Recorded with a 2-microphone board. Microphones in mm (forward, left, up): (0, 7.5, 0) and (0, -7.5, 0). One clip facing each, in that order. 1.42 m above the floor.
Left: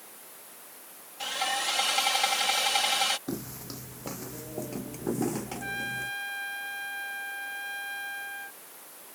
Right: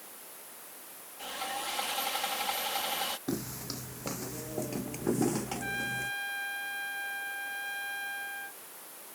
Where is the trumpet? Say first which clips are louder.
Left 1 dB; 5° left (ahead or behind).